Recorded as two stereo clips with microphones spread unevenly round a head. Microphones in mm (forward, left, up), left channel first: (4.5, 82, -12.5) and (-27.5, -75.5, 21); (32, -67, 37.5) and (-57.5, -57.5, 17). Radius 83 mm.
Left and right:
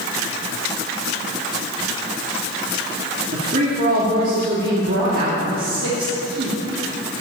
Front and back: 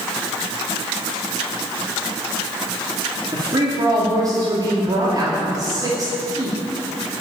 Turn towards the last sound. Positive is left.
turn(degrees=-135)